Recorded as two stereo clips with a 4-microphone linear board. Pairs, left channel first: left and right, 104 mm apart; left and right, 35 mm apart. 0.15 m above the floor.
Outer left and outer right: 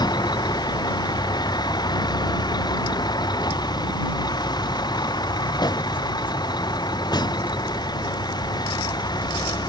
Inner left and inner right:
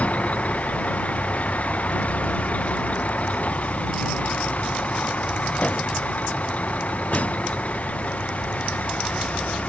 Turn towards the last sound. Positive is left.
turn(degrees=40)  # may be behind; listen again after turning